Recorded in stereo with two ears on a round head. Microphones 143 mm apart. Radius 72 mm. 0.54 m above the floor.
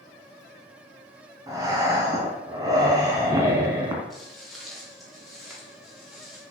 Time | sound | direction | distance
1.5 | breathing | 25° right (ahead or behind) | 3 m
4.1 | footsteps | centre (ahead or behind) | 6 m